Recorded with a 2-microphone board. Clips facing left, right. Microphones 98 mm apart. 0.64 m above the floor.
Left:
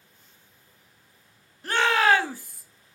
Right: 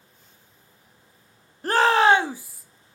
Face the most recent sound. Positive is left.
turn(degrees=0)  # may be behind; listen again after turning